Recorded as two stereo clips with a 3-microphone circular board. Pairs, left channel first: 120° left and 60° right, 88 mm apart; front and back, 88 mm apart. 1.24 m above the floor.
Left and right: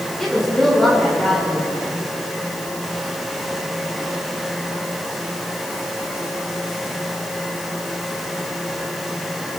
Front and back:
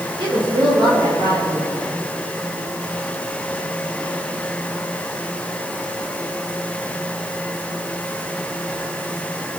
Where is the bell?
I don't hear a bell.